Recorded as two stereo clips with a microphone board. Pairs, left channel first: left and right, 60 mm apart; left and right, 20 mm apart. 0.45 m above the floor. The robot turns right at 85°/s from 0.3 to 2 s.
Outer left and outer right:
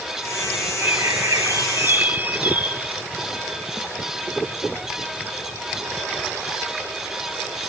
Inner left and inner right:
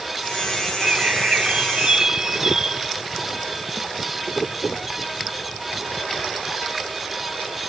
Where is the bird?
135° right; by 2.9 s 30° right.